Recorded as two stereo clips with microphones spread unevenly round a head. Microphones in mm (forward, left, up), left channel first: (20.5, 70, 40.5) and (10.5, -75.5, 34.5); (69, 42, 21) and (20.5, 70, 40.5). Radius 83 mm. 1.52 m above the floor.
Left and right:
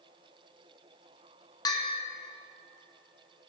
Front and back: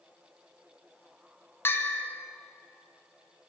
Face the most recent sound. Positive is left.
turn(degrees=25)